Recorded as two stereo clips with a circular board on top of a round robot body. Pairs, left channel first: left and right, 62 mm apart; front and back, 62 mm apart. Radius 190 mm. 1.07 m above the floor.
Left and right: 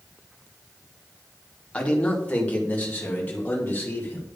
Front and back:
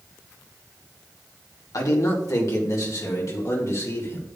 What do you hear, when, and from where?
1.7 s a man speaking: 20° left, 3 m; by 4.4 s 30° left, 4.5 m